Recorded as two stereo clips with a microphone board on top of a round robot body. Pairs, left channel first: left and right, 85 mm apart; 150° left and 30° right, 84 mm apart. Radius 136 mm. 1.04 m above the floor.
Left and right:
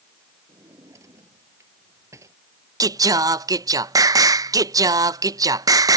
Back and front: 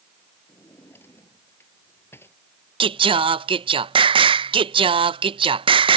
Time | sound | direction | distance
0.5 | a drawer | 145° right | ?
2.8 | singing | 40° right | ?